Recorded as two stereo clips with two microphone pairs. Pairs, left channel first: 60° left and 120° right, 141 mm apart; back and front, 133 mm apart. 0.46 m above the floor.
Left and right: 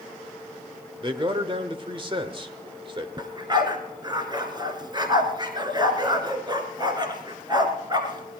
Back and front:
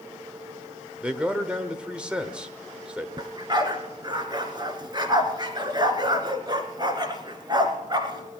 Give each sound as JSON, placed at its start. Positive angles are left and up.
{"t": 1.0, "sound": "a man speaking", "azimuth_deg": -80, "distance_m": 1.2}
{"t": 3.2, "sound": "a dog barking", "azimuth_deg": -60, "distance_m": 1.6}